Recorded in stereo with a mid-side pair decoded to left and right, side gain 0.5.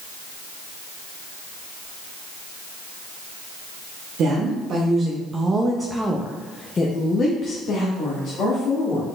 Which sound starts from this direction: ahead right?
A woman speaking, at 4.2 s.